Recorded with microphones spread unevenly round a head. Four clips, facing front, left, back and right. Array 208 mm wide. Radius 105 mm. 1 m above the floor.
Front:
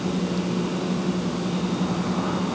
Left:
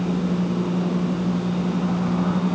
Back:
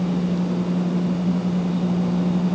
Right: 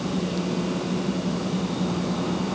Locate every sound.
Only background noise.